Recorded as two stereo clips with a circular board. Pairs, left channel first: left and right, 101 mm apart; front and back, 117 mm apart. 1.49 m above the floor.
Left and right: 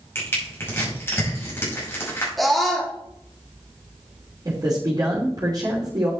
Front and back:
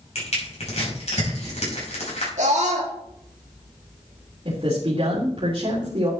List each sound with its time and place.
0.1 s crushing: 20° left, 6 m
2.4 s a scream: straight behind, 3.5 m
4.5 s a man speaking: 145° right, 3 m